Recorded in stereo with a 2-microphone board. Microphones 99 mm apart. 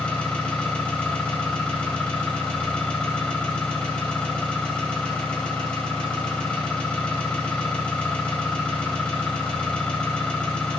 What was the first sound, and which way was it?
An engine running, 10° left (ahead or behind).